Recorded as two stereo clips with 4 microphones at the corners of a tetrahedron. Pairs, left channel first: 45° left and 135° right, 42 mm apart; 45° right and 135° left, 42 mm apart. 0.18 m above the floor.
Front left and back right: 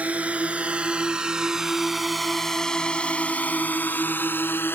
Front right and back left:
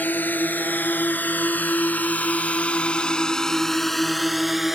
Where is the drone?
80° right; by 4.8 s 55° left.